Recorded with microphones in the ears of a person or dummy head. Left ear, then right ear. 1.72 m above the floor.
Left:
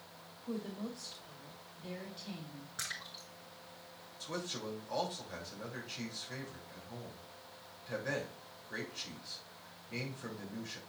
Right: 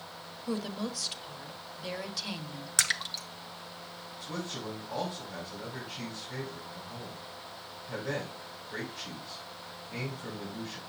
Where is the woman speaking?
60° right (ahead or behind), 1.2 m.